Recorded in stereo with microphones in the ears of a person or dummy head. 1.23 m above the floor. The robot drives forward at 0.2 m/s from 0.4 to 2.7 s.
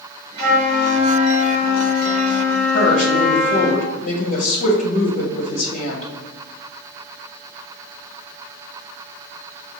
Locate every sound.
0.4 s a flute: 60° right (ahead or behind), 1.0 m; by 3.7 s 70° right (ahead or behind), 0.9 m
2.7 s a woman speaking: 40° left (ahead or behind), 1.0 m